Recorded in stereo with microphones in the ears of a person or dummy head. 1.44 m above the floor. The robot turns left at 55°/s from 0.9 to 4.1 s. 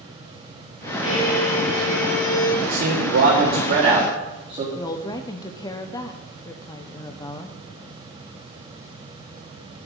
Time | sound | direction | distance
1.0 | a violin | 165° left | 4.5 m
2.6 | a man speaking | 65° right | 2 m
4.8 | a woman speaking | 20° left (ahead or behind) | 0.7 m